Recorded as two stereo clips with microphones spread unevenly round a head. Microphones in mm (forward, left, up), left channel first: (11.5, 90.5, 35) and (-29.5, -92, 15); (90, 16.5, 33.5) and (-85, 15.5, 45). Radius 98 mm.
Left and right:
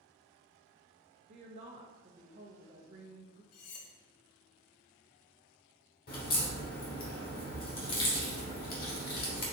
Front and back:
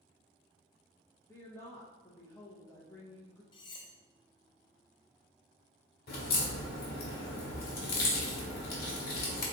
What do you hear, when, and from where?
1.3 s a woman speaking: 65° right, 0.9 m
3.5 s cutlery clinking: 65° left, 0.6 m
6.1 s a crack: 35° left, 1.2 m